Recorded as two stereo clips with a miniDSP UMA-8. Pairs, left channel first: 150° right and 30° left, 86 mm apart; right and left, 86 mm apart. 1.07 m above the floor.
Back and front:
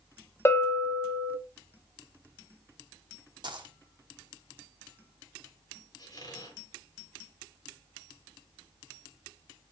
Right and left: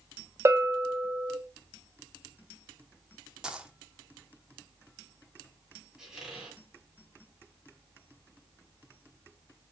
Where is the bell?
150° left, 0.8 m.